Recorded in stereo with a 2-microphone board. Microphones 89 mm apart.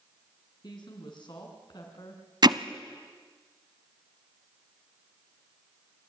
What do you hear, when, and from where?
0.6 s a woman speaking: 55° left (ahead or behind), 3.5 m
2.4 s hammering: 50° right (ahead or behind), 0.7 m